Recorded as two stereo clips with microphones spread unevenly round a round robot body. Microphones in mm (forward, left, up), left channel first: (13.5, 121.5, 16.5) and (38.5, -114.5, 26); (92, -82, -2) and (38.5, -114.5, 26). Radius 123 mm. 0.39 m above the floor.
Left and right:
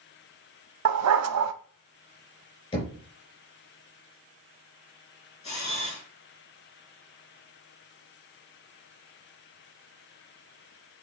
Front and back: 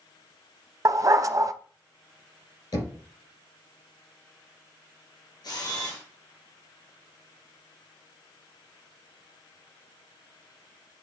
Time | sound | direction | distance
0.8 | a dog barking | 115° right | 0.5 m
2.7 | knocking | 30° left | 4.5 m
5.4 | a camera shutter | 30° left | 4 m